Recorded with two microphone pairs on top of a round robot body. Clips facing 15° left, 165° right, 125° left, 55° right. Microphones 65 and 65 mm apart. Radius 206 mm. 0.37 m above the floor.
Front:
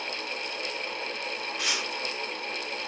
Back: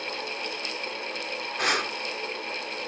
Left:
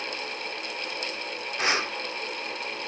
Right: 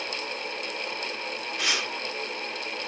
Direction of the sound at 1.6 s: 175° left.